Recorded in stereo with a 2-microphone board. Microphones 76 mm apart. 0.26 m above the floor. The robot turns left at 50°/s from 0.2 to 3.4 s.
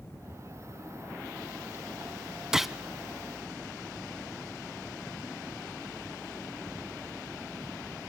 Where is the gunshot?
10° right (ahead or behind), 0.8 m; by 2.8 s centre (ahead or behind), 0.8 m.